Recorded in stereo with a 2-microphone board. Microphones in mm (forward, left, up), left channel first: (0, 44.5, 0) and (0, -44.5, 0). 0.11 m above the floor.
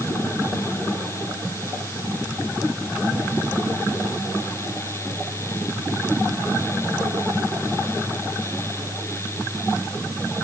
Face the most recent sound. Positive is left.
No sound to turn to.